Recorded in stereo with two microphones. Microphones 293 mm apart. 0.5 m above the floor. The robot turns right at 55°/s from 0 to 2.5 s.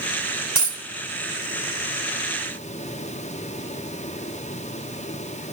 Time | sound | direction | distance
0.6 | a dropped coin | 80° right | 1.5 m